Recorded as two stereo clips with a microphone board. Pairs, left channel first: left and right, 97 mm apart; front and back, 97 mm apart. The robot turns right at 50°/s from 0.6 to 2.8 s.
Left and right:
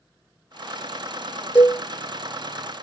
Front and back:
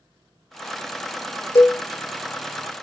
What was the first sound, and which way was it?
A cowbell, 20° left.